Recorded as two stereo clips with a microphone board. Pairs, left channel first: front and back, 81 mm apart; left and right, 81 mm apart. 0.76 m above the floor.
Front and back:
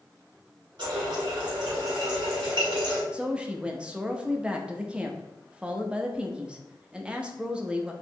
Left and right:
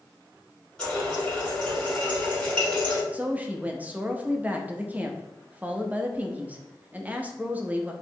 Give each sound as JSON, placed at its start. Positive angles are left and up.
{"t": 0.8, "sound": "a running tap", "azimuth_deg": 165, "distance_m": 2.0}
{"t": 3.1, "sound": "a woman speaking", "azimuth_deg": -120, "distance_m": 0.5}